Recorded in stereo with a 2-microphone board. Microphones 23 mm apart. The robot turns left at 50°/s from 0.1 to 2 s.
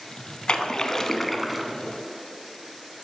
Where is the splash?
45° left, 0.6 m; by 1.7 s 15° right, 0.6 m.